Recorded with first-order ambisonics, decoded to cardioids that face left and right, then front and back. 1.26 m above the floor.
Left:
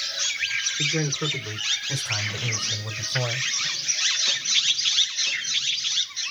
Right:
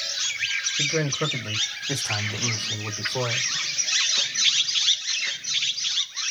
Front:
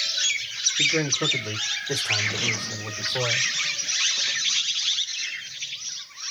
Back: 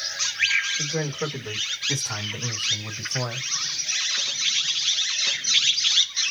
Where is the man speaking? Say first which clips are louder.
Right 1 dB, front 6 dB; 75° right, 2 m; by 3.5 s 65° right, 4 m.